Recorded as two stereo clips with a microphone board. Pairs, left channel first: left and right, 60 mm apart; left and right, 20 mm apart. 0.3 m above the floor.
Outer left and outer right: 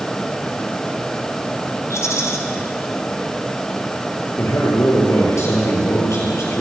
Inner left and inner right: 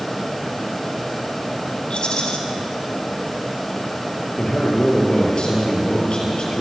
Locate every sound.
1.9 s a rattle: 55° left (ahead or behind), 2.5 m
4.4 s a man speaking: 55° left (ahead or behind), 6.5 m